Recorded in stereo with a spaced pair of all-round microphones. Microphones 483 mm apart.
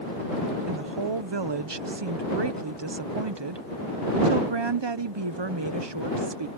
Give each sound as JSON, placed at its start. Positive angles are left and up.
{"t": 0.7, "sound": "a woman speaking", "side_deg": -60}